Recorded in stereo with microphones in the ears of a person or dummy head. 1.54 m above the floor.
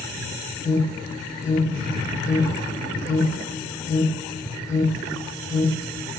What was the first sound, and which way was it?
An alarm, 20° left (ahead or behind).